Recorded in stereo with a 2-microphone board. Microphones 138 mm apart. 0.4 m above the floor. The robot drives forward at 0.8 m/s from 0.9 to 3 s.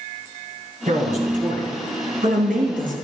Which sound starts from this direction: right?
A man speaking, at 0.9 s.